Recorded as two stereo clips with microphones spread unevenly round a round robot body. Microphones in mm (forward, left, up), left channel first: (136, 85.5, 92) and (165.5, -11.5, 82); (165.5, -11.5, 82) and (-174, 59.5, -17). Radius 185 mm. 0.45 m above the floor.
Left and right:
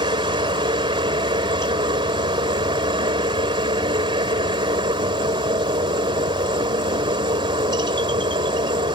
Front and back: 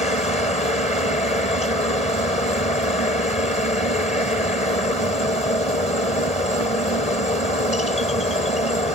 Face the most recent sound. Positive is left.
turn(degrees=-90)